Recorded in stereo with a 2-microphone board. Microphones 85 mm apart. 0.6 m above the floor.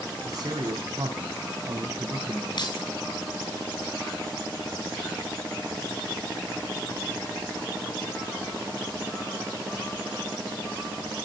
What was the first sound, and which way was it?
A man speaking, 50° right (ahead or behind).